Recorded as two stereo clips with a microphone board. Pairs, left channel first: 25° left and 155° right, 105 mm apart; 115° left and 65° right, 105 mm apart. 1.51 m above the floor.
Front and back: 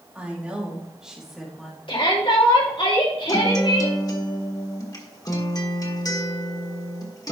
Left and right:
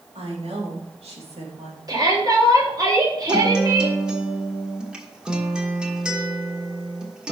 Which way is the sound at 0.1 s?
80° right.